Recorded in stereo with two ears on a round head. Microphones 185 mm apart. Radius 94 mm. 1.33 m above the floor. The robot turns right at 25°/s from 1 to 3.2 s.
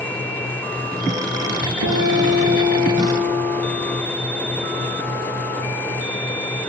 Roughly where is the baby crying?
No baby crying in this recording.